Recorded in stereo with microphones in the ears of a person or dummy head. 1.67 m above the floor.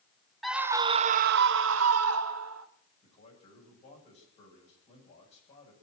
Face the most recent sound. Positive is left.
turn(degrees=35)  # may be behind; listen again after turning